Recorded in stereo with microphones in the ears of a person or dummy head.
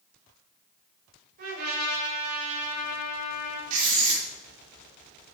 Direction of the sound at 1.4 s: 55° right (ahead or behind).